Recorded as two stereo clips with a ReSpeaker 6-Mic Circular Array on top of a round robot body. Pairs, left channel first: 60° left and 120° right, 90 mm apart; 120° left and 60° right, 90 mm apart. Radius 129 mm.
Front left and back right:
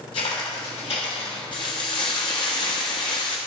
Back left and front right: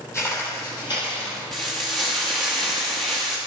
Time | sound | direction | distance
0.1 | footsteps | 60° left | 2 m
1.5 | frying | 35° left | 0.6 m